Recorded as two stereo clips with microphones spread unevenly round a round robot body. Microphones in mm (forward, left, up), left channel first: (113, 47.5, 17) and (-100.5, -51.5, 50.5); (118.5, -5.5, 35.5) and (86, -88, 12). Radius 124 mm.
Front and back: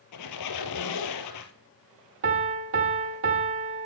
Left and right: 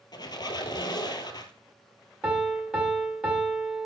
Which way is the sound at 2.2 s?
175° right.